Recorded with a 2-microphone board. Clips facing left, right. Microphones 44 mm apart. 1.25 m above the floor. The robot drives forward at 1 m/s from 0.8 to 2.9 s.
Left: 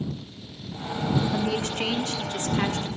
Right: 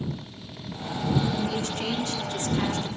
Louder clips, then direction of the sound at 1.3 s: Left 2 dB; 45° left (ahead or behind).